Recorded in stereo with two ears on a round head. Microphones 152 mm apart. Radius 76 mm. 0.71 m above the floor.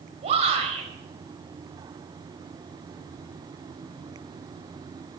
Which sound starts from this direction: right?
A shout, at 0.2 s.